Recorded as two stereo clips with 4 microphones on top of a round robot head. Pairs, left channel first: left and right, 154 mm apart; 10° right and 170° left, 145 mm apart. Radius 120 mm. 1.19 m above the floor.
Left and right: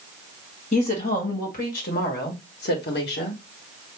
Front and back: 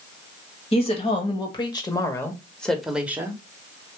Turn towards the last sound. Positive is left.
turn(degrees=100)